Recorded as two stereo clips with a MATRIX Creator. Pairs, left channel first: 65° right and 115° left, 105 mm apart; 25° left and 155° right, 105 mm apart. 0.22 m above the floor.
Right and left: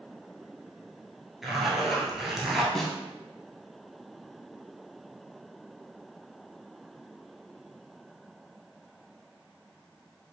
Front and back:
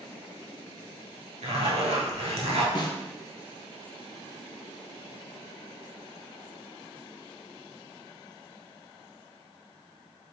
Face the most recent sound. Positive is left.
turn(degrees=15)